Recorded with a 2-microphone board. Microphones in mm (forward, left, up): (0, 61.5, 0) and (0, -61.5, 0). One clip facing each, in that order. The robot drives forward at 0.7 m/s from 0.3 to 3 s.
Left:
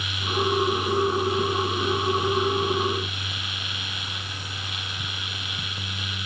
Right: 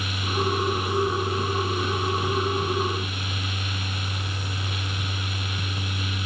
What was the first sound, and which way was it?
Only background noise.